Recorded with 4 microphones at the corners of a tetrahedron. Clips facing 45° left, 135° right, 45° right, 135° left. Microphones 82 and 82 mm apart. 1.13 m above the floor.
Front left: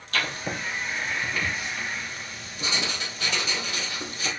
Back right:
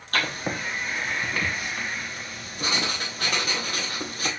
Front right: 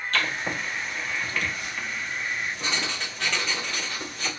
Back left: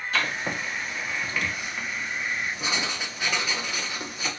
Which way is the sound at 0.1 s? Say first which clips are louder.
Back right 2 dB, even; 150° right.